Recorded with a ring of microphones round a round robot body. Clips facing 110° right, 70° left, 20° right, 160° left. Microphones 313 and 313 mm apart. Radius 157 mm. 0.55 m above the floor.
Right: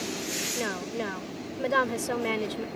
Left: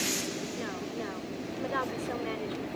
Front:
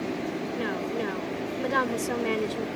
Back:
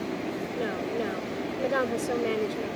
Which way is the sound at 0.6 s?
100° right.